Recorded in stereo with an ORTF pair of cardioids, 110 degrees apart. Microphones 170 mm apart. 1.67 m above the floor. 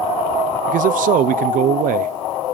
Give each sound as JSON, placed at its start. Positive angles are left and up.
{"t": 0.7, "sound": "a man speaking", "azimuth_deg": -55, "distance_m": 0.5}